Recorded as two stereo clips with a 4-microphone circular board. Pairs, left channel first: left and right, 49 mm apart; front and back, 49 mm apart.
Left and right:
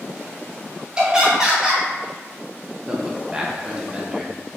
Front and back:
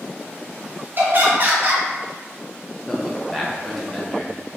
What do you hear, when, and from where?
1.0 s laughter: 155° right, 0.9 m
2.9 s a man speaking: 70° right, 0.6 m